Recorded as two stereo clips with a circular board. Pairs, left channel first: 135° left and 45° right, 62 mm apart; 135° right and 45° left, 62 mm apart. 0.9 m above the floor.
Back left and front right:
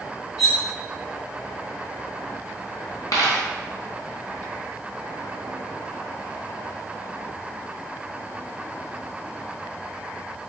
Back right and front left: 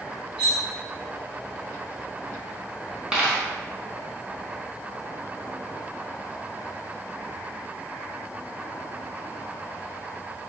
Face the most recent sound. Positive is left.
turn(degrees=120)